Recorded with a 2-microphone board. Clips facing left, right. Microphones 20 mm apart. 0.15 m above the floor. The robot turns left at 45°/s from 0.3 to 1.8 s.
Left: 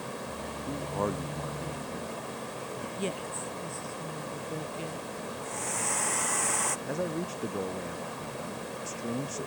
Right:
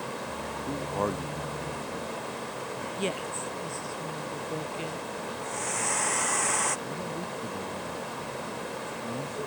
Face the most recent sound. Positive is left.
turn(degrees=75)  # may be behind; listen again after turning